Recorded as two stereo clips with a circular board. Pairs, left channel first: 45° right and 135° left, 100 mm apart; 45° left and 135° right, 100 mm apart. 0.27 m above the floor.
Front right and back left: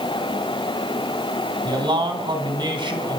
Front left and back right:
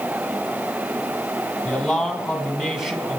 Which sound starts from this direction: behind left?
A man speaking, at 1.6 s.